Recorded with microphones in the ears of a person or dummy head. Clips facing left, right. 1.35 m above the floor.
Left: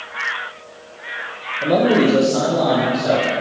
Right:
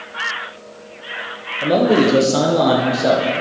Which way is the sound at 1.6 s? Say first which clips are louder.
Right 1 dB; 5° right (ahead or behind).